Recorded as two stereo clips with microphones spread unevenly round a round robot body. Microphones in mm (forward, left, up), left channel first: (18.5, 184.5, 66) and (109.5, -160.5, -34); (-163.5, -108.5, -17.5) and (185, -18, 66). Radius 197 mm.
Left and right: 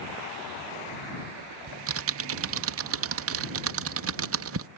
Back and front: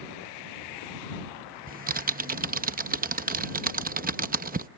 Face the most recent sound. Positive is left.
turn(degrees=-60)